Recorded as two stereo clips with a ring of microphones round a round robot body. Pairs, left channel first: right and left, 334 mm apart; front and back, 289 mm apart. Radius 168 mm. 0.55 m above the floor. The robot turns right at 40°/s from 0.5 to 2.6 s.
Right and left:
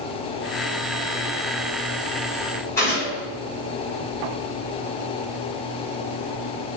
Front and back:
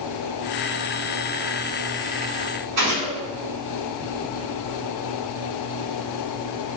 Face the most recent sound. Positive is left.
turn(degrees=-170)